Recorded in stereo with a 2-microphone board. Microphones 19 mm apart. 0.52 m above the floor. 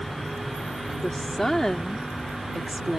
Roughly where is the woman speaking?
Left.